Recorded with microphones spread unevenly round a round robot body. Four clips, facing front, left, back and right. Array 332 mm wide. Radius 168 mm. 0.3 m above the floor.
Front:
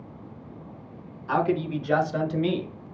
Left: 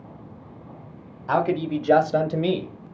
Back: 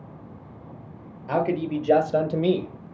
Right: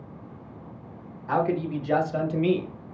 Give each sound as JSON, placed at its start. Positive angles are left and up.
{"t": 1.3, "sound": "a man speaking", "azimuth_deg": 120, "distance_m": 1.6}